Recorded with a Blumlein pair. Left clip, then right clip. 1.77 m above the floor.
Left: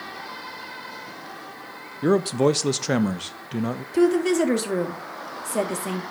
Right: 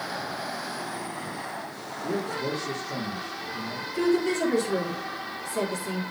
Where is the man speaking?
45° left, 1.0 m.